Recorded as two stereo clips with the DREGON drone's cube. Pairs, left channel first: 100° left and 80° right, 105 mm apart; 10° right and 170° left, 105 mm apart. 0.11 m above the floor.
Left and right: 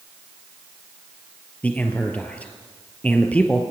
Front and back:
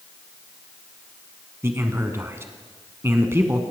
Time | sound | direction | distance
1.6 | a man speaking | 150° left | 1.1 m